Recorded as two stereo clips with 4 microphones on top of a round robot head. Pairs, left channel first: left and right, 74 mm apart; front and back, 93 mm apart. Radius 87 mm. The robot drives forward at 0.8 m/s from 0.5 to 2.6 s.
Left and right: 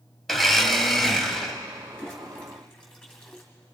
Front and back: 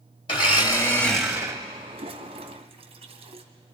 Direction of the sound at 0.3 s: 5° left.